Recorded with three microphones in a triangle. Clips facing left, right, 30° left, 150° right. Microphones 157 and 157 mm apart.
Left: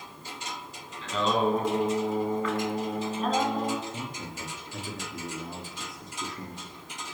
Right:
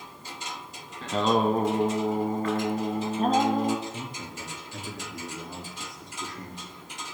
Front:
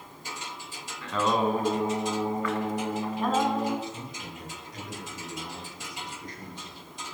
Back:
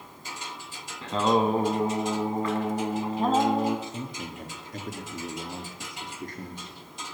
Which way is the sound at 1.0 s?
100° right.